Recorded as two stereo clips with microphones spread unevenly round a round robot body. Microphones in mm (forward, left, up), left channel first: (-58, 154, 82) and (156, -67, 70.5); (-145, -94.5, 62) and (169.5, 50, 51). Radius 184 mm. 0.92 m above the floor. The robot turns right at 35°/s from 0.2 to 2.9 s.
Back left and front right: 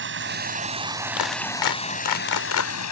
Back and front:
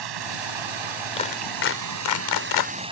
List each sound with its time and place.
0.0 s running water: 5° left; by 2.9 s 100° left
1.2 s a clap: 130° left; by 2.7 s 175° right